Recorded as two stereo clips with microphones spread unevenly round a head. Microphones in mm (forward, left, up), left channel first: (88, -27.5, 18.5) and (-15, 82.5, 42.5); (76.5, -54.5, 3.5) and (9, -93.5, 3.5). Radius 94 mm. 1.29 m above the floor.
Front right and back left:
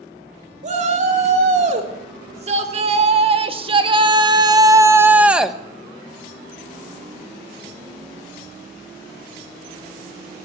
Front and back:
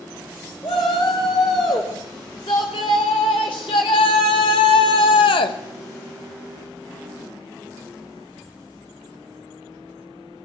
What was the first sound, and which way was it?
A shout, 95° left.